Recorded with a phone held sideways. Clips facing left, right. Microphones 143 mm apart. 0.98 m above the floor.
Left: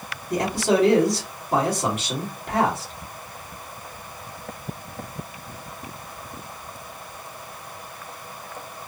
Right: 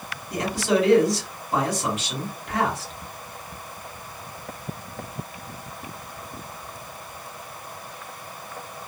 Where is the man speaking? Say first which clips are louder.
Left 2 dB; 60° left (ahead or behind), 2 m.